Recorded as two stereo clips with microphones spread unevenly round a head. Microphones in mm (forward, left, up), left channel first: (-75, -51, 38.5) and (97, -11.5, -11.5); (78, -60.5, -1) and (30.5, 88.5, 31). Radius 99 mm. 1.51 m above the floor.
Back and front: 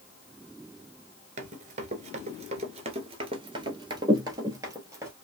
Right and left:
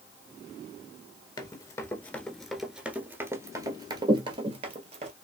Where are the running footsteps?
15° right, 1.6 m; by 5.1 s 100° left, 2 m.